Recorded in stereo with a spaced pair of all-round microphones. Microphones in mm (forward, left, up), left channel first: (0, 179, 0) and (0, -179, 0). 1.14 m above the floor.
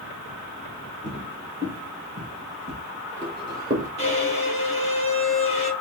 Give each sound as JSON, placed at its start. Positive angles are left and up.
{"t": 1.0, "sound": "footsteps", "side_deg": -35, "distance_m": 1.7}
{"t": 4.0, "sound": "a violin", "side_deg": 20, "distance_m": 0.9}